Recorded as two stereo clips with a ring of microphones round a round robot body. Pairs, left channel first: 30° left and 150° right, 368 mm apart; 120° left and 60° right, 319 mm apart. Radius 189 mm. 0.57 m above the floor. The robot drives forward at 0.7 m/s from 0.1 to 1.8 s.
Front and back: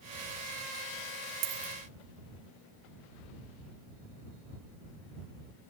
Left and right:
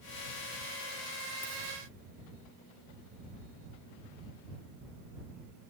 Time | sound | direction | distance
1.4 | a dropped coin | 160° right | 1.3 m